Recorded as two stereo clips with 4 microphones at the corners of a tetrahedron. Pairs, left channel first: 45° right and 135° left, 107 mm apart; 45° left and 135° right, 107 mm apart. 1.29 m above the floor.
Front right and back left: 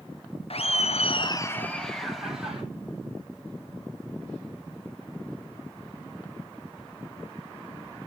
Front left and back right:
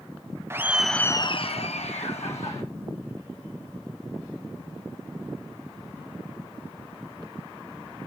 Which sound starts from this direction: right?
Laughter, at 0.5 s.